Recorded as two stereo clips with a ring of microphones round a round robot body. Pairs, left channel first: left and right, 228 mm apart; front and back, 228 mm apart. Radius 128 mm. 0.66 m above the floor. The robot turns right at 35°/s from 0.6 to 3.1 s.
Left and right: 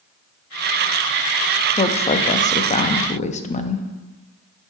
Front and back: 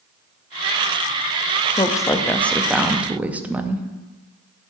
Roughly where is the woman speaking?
Ahead left.